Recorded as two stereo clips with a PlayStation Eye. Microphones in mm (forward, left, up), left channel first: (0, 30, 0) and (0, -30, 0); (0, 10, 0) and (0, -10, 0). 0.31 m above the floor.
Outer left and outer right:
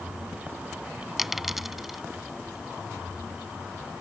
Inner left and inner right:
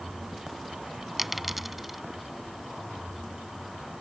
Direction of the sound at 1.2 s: 5° right (ahead or behind).